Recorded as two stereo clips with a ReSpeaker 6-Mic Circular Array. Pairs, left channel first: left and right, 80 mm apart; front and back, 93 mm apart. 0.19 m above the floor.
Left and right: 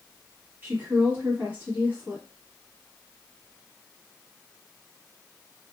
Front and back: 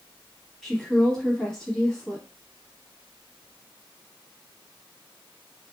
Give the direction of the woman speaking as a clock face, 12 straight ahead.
3 o'clock.